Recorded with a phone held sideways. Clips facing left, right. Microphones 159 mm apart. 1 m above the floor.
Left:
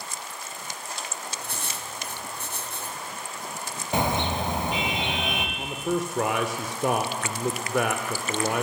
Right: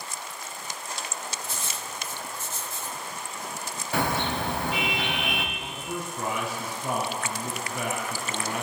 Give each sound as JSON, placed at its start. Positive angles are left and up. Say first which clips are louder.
{"t": 1.4, "sound": "writing", "louder": "even", "side_deg": 65, "distance_m": 2.5}
{"t": 3.9, "sound": "a car horn", "louder": "left 2 dB", "side_deg": 20, "distance_m": 3.0}
{"t": 5.6, "sound": "a man speaking", "louder": "left 7 dB", "side_deg": 85, "distance_m": 2.5}